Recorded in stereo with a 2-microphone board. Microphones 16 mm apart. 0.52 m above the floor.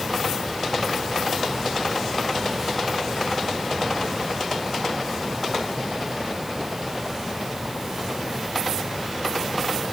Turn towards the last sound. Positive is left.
No sound to turn to.